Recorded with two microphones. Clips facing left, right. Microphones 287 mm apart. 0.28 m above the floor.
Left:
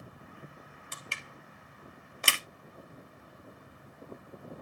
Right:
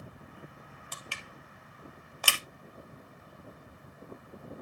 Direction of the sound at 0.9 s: 25° left (ahead or behind).